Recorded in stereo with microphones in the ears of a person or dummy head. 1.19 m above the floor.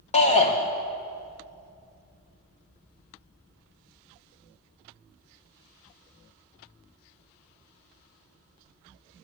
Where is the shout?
30° left (ahead or behind), 1.1 m.